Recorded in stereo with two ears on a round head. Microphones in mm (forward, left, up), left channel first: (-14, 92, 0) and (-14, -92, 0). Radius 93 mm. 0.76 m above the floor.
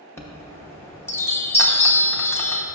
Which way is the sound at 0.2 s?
10° left (ahead or behind).